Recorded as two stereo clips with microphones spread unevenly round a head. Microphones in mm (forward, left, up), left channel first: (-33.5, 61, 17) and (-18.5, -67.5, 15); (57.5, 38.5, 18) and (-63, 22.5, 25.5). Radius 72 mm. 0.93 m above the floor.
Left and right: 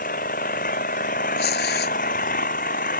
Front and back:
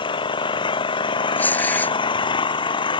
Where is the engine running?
60° left.